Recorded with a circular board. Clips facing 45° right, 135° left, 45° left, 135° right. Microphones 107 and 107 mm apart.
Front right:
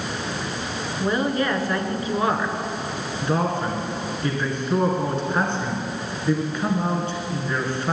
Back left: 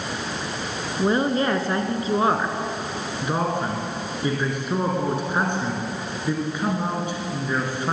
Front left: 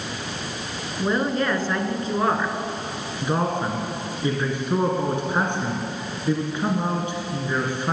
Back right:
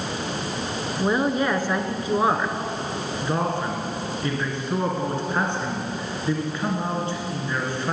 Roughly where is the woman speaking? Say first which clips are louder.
Back left 2 dB, back right 1 dB; behind.